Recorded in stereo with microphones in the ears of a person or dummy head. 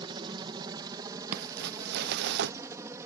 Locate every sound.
0.0 s a helicopter: 25° right (ahead or behind); by 3.1 s 15° right (ahead or behind)
1.3 s crumpling: 60° right (ahead or behind)